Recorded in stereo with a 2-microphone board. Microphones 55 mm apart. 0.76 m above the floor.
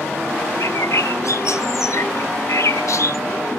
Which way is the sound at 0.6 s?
75° left (ahead or behind).